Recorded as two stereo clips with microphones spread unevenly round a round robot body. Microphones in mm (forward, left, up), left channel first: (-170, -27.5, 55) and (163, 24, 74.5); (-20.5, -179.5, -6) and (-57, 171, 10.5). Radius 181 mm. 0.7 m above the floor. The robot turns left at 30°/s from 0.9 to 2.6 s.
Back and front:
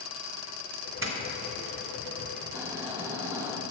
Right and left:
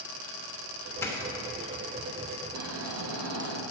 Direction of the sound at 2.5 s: 90° left.